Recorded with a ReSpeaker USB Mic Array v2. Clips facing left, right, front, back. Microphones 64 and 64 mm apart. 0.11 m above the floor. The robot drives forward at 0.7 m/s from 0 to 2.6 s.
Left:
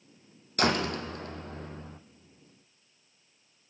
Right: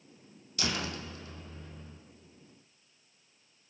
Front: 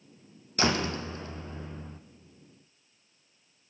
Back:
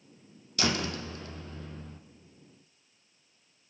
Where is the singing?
No singing in this recording.